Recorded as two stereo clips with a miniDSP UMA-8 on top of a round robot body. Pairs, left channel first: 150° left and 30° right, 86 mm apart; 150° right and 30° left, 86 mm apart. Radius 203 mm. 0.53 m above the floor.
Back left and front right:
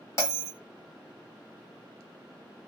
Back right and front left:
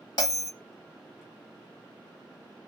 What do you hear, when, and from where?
0.2 s a bell: 160° right, 2.5 m